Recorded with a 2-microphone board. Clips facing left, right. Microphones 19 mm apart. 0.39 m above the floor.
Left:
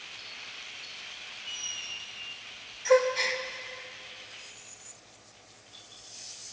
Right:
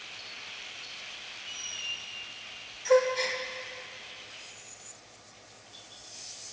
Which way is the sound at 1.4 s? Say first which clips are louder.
Even; 15° left (ahead or behind).